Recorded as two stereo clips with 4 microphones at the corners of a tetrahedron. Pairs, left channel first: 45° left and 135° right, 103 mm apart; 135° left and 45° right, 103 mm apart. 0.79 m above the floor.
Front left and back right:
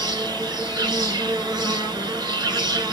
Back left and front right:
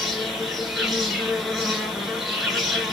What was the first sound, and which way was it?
An insect, 135° right.